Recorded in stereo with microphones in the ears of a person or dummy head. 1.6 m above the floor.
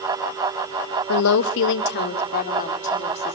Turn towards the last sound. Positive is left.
turn(degrees=30)  # may be behind; listen again after turning